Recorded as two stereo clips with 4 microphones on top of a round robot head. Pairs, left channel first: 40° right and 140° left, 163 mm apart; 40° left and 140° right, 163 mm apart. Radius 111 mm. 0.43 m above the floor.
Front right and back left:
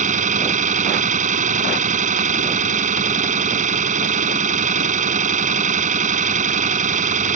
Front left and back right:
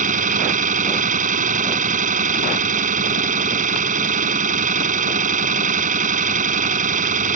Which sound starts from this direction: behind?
An engine running, at 0.0 s.